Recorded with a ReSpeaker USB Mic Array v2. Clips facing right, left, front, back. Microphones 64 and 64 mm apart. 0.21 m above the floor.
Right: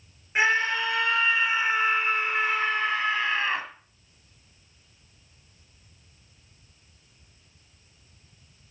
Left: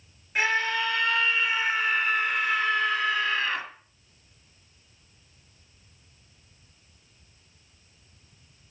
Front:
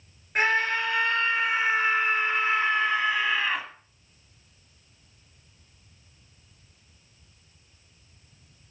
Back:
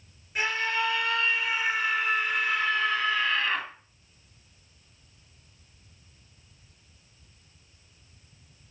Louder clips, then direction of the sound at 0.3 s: Right 2 dB, front 4 dB; 30° right.